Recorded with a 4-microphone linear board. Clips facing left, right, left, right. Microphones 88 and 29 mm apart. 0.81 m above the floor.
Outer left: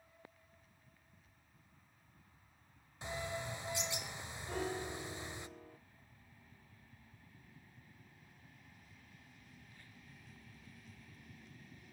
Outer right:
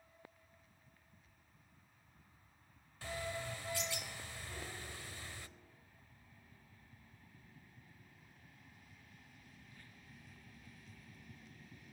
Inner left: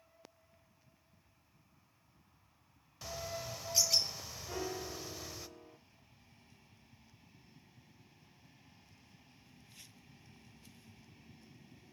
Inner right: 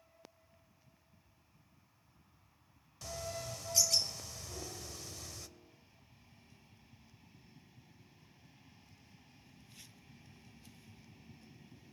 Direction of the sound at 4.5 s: 50° left (ahead or behind).